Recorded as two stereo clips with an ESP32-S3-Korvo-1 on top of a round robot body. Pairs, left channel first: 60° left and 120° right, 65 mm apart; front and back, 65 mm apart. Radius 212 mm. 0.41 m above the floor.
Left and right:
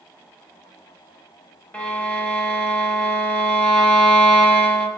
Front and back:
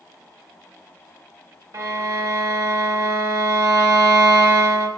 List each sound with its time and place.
1.7 s a violin: 135° left, 0.9 m